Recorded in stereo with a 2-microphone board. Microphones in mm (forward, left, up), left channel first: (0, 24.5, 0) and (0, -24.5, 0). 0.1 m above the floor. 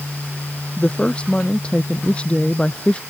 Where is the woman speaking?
25° left (ahead or behind).